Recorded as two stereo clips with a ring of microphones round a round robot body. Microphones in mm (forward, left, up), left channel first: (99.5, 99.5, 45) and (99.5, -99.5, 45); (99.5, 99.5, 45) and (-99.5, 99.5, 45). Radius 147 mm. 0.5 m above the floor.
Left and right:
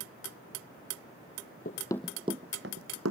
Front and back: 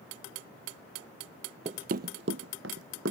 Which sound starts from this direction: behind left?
Running footsteps, at 1.6 s.